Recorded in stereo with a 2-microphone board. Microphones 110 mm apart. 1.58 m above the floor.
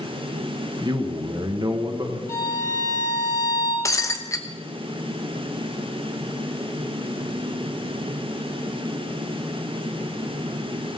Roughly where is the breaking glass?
Left.